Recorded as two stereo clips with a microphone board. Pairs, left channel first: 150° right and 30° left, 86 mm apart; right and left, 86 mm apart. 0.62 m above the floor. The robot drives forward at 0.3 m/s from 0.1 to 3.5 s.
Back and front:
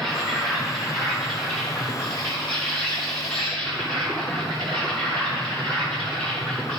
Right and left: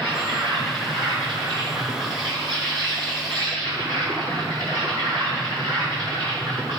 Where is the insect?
120° left, 5.5 m; by 6.8 s 130° left, 6 m.